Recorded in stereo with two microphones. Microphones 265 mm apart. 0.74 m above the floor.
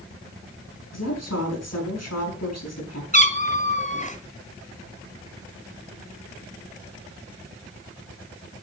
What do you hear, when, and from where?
0.9 s a woman speaking: 75° left (ahead or behind), 6.5 m
3.1 s a cat meowing: 30° left (ahead or behind), 1.5 m